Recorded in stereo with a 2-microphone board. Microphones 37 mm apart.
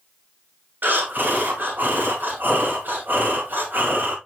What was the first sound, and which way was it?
Breathing, 65° right (ahead or behind).